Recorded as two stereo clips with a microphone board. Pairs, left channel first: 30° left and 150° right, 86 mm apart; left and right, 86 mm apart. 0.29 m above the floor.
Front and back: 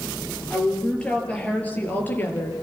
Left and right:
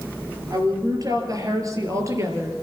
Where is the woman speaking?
50° right, 5.5 m; by 2.6 s 35° right, 5 m.